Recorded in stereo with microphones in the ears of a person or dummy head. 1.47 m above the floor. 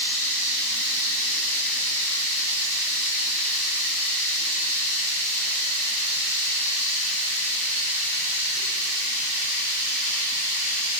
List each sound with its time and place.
0.0 s running water: 35° right (ahead or behind), 0.8 m